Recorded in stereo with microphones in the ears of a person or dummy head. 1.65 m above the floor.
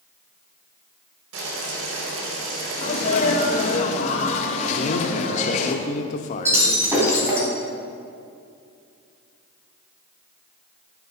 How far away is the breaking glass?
About 4 m.